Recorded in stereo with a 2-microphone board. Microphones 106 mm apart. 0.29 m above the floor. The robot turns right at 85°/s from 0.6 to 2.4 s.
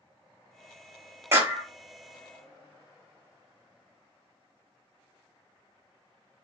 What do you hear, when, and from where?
1.3 s a clap: 25° right (ahead or behind), 0.8 m; by 1.7 s 15° right (ahead or behind), 0.8 m